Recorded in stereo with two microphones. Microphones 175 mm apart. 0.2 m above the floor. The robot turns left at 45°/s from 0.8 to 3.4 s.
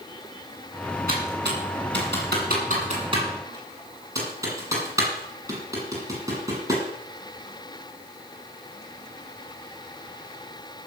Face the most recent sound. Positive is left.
turn(degrees=-15)  # may be behind; listen again after turning